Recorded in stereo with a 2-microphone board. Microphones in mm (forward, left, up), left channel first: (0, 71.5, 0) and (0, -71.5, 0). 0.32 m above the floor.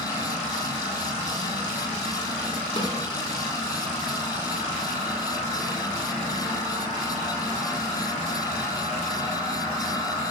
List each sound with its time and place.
2.8 s a snare drum: 40° left (ahead or behind), 3.5 m